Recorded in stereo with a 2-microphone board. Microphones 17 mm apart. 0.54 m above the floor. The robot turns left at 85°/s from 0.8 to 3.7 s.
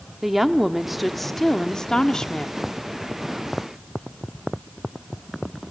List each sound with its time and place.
0.2 s a woman speaking: 155° right, 0.8 m; by 2.6 s 55° left, 0.8 m